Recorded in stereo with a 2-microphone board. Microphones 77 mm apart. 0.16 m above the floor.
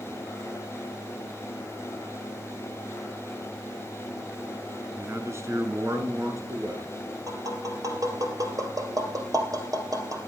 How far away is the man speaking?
About 1.8 m.